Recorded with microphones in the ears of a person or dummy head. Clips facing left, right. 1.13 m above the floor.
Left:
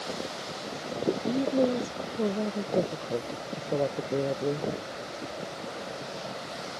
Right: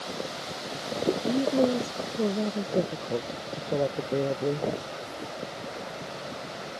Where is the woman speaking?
10° right (ahead or behind).